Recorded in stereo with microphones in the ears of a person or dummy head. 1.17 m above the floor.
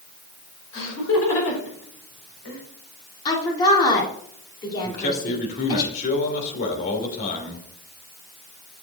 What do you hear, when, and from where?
0.7 s laughter: 75° left (ahead or behind), 4.5 m
3.2 s a woman speaking: 25° left (ahead or behind), 3 m
4.8 s a man speaking: 45° left (ahead or behind), 3 m